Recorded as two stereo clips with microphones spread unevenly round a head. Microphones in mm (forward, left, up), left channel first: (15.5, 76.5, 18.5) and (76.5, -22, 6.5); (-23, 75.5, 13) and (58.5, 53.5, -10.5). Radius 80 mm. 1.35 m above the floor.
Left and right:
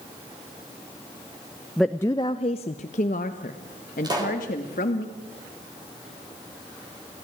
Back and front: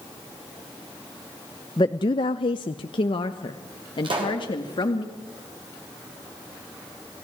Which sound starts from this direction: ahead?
A pop, at 4.0 s.